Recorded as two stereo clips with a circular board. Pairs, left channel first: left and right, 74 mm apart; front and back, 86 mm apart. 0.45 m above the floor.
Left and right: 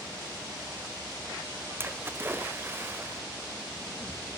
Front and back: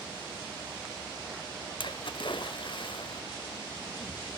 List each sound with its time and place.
1.8 s a splash: 30° right, 0.5 m